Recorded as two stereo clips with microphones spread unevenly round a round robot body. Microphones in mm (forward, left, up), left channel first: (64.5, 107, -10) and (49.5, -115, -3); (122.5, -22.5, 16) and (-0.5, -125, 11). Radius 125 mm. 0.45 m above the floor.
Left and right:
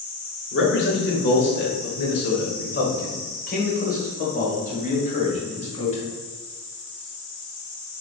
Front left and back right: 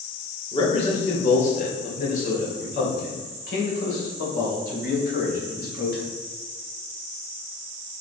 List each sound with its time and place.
0.5 s a man speaking: 95° left, 2 m; by 6.0 s 30° left, 3.5 m